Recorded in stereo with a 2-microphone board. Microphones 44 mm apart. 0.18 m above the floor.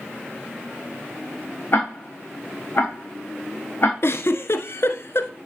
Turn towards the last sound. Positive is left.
turn(degrees=65)  # may be behind; listen again after turning